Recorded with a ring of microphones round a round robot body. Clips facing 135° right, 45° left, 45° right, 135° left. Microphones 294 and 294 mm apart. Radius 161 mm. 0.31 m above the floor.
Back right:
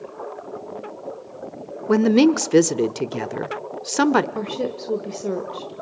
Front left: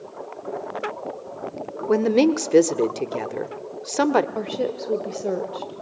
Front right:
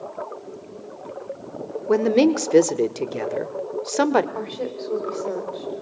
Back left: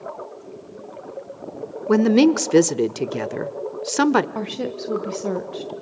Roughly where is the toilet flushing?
No toilet flushing in this recording.